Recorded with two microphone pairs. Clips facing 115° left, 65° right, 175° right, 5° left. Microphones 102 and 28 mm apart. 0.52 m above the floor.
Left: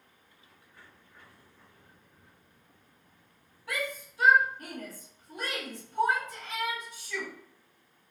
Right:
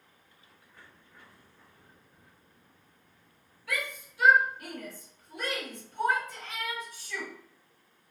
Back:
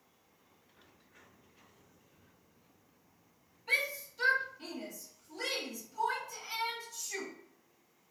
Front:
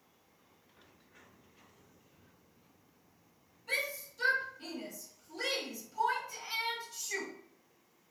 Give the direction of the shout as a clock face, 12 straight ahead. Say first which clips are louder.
Left 1 dB, back 3 dB; 7 o'clock.